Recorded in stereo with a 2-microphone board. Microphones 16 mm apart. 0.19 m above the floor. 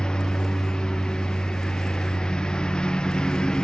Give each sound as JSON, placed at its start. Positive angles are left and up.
{"t": 0.0, "sound": "a lawn mower", "side_deg": 65}